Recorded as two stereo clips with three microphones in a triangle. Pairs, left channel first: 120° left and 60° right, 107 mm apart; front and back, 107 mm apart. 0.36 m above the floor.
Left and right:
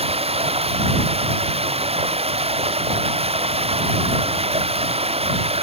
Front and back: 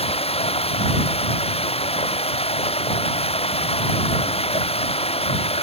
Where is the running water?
30° right.